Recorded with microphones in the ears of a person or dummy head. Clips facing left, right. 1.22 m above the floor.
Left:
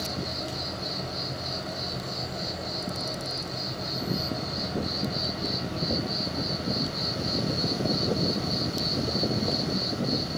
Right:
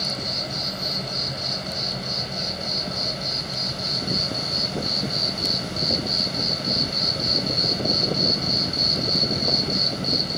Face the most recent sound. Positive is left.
turn(degrees=-40)  # may be behind; listen again after turning